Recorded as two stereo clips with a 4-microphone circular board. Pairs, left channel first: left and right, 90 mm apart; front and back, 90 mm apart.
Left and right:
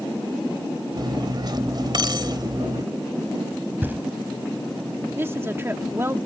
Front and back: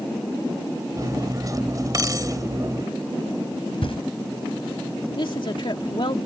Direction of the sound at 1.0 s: 130° right.